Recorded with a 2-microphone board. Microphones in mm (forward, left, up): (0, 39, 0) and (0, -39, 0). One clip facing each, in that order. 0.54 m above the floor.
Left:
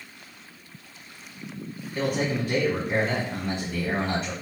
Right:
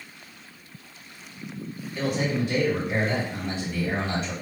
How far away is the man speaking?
About 1.2 m.